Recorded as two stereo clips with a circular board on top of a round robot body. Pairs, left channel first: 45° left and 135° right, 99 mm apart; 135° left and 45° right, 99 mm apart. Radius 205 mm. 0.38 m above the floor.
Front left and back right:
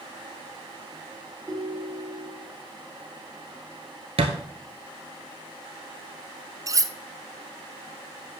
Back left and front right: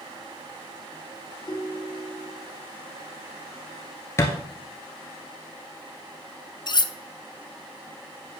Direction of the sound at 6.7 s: 175° left.